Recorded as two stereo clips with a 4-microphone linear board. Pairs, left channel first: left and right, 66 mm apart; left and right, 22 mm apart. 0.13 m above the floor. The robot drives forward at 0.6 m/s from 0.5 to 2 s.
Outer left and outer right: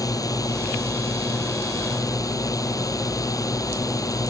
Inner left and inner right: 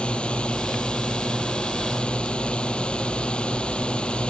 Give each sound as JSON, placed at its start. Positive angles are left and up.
{"t": 0.0, "sound": "a drone", "side_deg": 65}